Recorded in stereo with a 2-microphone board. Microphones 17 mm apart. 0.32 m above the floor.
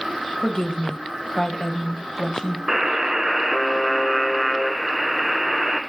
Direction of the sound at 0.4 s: 35° left (ahead or behind).